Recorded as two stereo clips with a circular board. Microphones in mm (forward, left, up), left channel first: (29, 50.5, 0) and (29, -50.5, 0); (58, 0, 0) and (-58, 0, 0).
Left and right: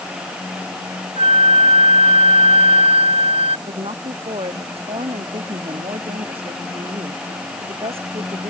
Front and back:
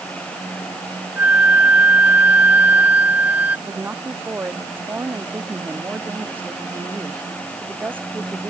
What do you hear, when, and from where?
1.2 s a flute: 105° right
3.7 s a woman speaking: 105° right